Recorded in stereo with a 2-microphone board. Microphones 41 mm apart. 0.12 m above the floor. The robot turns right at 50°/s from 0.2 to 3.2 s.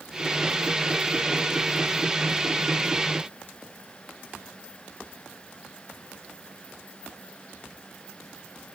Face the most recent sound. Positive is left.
No sound to turn to.